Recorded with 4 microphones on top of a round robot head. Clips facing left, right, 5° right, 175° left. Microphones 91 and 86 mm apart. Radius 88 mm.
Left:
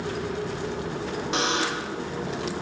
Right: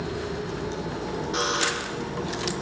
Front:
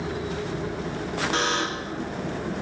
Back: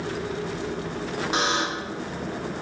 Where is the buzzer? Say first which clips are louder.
Left 1 dB, back 2 dB; 100° left, 3.5 m.